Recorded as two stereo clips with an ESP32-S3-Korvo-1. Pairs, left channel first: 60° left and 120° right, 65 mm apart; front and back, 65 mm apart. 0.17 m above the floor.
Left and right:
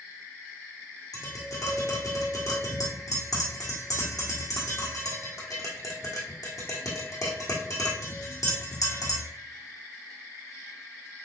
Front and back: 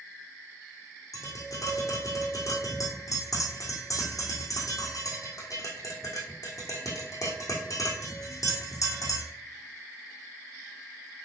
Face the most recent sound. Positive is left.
turn(degrees=35)